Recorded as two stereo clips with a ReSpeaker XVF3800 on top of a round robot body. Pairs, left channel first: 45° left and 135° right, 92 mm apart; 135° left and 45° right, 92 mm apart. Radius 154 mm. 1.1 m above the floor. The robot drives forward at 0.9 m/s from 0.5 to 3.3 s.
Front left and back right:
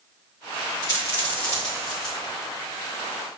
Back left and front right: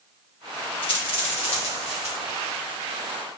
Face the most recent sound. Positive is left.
turn(degrees=145)